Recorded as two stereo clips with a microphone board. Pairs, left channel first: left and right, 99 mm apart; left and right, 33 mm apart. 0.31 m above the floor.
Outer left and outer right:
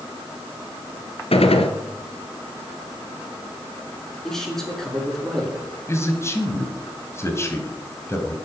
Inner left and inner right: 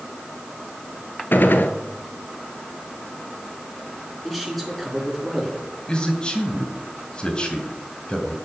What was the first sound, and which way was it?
A gunshot, 80° left.